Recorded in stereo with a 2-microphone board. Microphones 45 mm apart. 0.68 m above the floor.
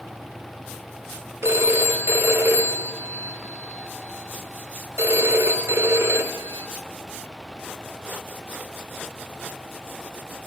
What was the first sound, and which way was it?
A phone ringing, 70° right (ahead or behind).